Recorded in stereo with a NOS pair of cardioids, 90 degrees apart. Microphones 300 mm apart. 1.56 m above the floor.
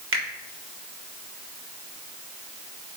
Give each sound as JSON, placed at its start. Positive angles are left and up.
{"t": 0.1, "sound": "a finger snap", "azimuth_deg": -45, "distance_m": 3.5}